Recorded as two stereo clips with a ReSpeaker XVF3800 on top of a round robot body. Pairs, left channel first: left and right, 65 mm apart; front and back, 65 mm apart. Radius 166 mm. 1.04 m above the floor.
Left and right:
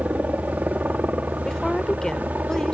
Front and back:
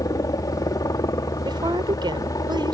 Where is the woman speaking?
170° left.